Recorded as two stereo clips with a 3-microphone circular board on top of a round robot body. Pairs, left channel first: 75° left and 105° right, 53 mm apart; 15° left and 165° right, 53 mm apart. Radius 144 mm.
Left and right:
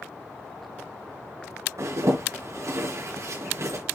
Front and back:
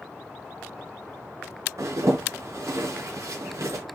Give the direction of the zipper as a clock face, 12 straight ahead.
4 o'clock.